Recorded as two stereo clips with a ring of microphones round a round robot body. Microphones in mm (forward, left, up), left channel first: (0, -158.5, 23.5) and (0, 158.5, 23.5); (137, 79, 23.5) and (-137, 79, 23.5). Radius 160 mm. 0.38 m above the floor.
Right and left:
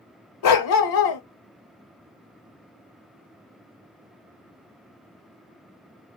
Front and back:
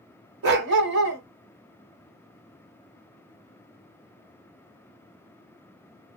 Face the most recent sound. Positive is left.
turn(degrees=-125)